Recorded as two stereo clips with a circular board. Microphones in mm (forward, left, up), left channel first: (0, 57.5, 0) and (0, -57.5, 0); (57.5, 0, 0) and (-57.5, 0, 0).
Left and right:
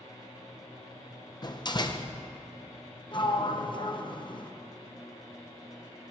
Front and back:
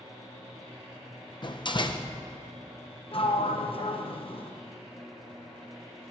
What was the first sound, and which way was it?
A door slam, 40° left.